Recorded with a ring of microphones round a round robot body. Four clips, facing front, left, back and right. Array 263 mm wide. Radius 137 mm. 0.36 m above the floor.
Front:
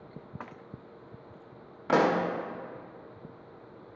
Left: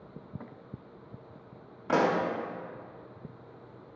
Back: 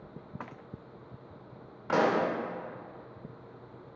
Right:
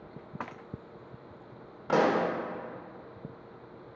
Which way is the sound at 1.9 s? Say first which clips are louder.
Right 1 dB, front 2 dB; 5° left.